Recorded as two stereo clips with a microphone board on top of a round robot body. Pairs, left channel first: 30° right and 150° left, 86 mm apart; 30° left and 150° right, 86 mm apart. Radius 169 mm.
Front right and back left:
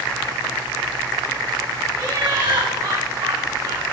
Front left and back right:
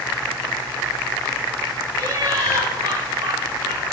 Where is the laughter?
175° left, 4.5 m.